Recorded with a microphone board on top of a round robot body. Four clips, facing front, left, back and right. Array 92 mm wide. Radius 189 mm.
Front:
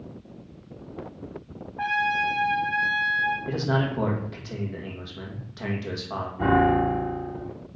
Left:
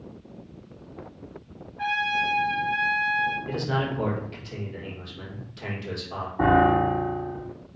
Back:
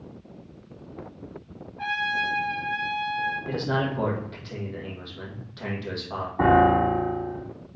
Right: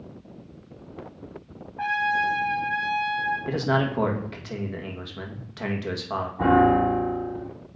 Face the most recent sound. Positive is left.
turn(degrees=160)